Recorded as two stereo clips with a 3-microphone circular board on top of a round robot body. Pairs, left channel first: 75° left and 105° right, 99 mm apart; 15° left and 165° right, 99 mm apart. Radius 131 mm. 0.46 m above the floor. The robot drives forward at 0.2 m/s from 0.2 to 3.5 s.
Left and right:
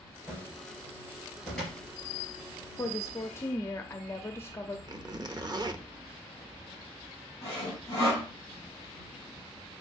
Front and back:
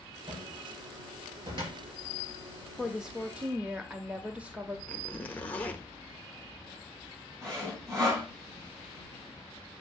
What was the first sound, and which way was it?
A cupboard door, 155° left.